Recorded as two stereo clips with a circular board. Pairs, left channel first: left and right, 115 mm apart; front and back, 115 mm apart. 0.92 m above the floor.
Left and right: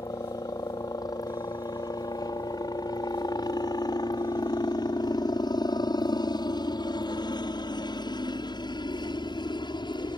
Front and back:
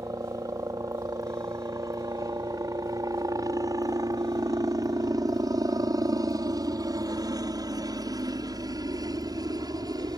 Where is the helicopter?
130° left.